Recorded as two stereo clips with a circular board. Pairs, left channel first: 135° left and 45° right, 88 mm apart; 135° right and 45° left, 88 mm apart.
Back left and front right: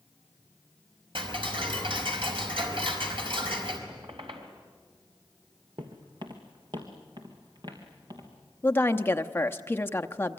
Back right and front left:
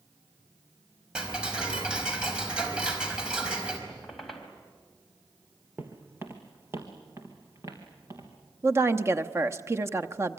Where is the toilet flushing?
No toilet flushing in this recording.